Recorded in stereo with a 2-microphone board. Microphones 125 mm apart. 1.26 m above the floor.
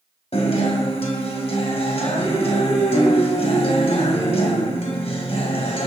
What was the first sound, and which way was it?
A guitar, 55° left (ahead or behind).